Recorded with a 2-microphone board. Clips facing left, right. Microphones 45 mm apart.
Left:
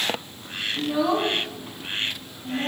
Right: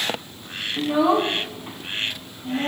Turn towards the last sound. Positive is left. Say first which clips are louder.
# right 4 dB
turn(degrees=-30)  # may be behind; listen again after turning